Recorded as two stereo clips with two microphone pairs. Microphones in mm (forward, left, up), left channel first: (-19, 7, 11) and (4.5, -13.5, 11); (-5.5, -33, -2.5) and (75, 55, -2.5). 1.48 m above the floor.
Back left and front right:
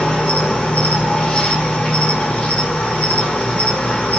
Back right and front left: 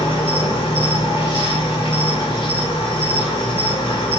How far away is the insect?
About 2 m.